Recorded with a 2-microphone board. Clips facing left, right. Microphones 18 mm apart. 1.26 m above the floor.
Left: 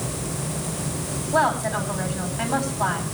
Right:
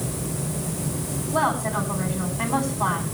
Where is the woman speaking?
40° left (ahead or behind), 9 m.